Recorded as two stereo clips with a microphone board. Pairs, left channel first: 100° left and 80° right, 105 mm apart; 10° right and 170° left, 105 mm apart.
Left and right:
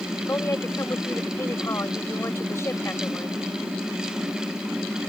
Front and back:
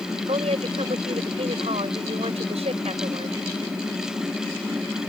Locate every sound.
0.3 s a woman speaking: 165° left